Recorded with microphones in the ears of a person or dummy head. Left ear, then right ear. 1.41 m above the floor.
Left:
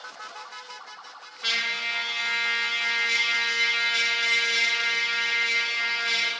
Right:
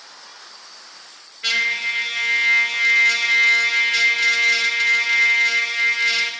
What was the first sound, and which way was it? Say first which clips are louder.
A trumpet: right 6 dB; 20° right (ahead or behind).